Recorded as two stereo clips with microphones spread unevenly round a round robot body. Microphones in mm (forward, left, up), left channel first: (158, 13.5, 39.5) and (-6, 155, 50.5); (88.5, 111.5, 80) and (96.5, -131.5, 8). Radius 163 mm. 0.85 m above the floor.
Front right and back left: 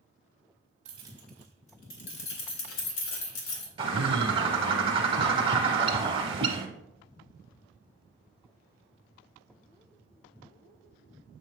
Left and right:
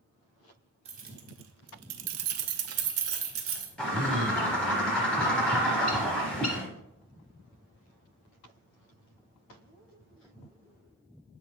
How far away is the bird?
About 0.7 m.